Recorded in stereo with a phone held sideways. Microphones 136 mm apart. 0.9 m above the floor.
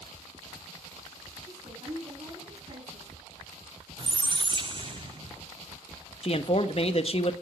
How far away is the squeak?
About 0.5 m.